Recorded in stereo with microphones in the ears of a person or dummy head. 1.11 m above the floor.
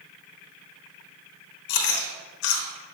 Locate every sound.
1.7 s chewing: 60° left (ahead or behind), 1.0 m